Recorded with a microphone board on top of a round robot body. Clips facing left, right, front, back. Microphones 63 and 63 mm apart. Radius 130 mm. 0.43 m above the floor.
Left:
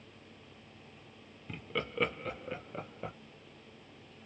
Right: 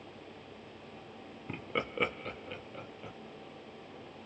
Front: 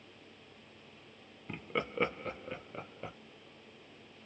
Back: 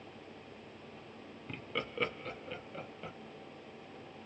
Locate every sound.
1.5 s laughter: 60° right, 1.0 m; by 3.1 s 65° left, 1.2 m